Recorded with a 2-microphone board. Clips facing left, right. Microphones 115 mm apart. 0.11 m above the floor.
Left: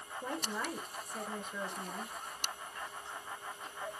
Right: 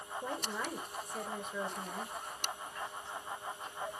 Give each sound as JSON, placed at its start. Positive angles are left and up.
{"t": 0.2, "sound": "a woman speaking", "side_deg": 0, "distance_m": 2.5}